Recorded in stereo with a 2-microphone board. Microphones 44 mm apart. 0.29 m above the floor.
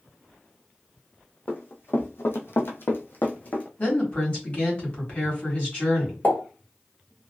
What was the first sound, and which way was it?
Running footsteps, 45° left (ahead or behind).